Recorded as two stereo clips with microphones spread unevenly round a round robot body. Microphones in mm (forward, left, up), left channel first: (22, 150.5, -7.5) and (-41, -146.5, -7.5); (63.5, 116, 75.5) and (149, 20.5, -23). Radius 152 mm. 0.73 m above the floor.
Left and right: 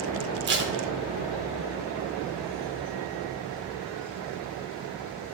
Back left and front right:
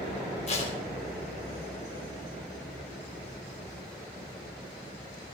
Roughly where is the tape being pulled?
Behind right.